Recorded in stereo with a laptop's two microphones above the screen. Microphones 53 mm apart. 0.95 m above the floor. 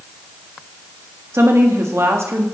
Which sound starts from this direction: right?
A woman speaking, at 1.3 s.